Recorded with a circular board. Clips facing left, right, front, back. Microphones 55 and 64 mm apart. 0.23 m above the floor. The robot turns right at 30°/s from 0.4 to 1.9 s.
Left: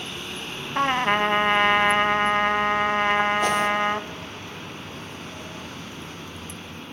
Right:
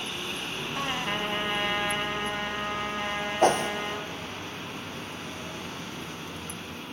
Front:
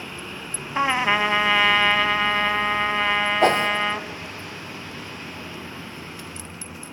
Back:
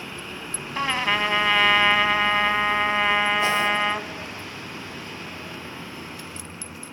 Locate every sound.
0.8 s a trumpet: 60° left, 0.8 m; by 4.1 s 95° left, 0.8 m
3.4 s a whoosh: 40° right, 1.5 m